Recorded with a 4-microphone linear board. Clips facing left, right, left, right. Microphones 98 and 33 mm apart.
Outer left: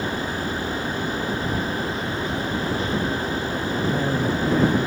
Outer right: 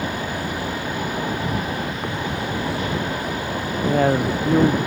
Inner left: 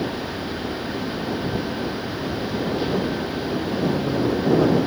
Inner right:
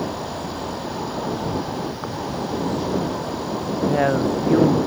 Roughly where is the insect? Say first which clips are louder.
Even, even; right.